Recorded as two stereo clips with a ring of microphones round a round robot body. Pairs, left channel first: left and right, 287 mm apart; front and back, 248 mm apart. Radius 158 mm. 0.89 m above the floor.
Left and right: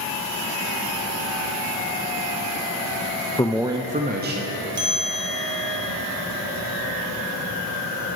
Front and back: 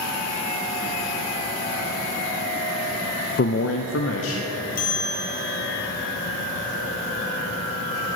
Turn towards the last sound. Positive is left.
turn(degrees=-35)